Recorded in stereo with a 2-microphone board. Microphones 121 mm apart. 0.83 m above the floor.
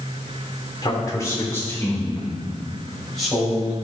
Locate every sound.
0.8 s a man speaking: 35° left (ahead or behind), 3 m; by 3.9 s centre (ahead or behind), 5.5 m